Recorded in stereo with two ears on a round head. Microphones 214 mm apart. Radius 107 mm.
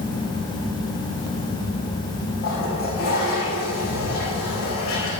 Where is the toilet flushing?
40° left (ahead or behind), 5 m.